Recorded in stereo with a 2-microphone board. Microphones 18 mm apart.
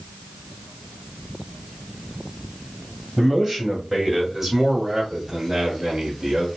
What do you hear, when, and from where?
3.2 s a man speaking: 15° left (ahead or behind), 1.8 m; by 6.5 s 25° right (ahead or behind), 1.5 m